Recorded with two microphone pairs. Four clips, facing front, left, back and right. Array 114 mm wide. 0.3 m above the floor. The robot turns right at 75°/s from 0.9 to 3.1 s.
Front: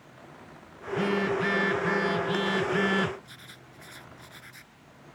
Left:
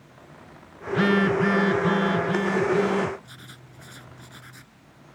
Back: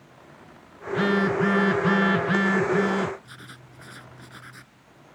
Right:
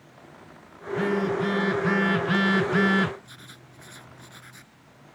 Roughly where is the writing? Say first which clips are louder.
Left 1 dB, back 4 dB; behind.